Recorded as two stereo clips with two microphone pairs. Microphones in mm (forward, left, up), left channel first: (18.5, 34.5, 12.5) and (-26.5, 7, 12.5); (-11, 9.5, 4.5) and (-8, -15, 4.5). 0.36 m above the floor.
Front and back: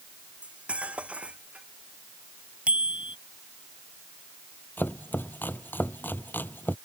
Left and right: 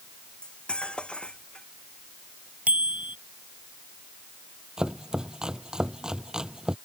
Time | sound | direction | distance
0.4 | cutlery clinking | 145° left | ?
2.7 | a bicycle bell | 80° right | ?
4.8 | chopping | 20° right | ?